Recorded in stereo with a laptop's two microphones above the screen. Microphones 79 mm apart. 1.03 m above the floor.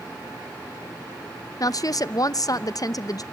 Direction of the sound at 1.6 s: 50° left (ahead or behind).